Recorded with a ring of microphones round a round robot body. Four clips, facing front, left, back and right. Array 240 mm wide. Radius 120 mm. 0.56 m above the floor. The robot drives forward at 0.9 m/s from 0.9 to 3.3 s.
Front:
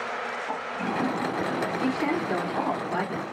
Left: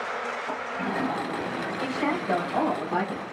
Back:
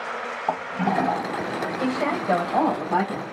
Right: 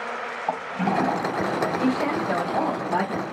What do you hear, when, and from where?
0.5 s a toilet flushing: 150° right, 1.6 m; by 2.8 s 165° right, 3 m
1.8 s a woman speaking: 175° right, 3 m